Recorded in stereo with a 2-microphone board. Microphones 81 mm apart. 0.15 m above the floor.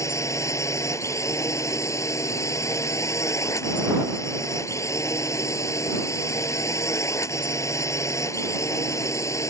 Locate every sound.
0.0 s a drone: 40° left (ahead or behind)